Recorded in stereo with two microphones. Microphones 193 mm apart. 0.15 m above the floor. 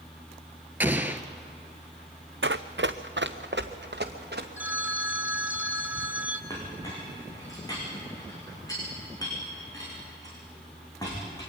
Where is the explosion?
10° right (ahead or behind), 1.2 m.